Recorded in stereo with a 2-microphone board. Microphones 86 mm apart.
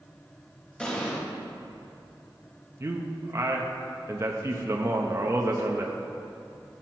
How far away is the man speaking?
About 0.8 m.